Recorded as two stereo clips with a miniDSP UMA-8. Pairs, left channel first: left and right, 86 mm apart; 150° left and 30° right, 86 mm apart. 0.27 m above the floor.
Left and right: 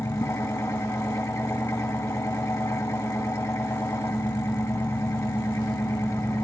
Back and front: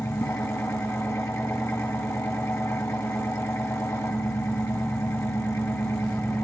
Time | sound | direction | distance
0.0 | an engine running | 120° left | 1.2 m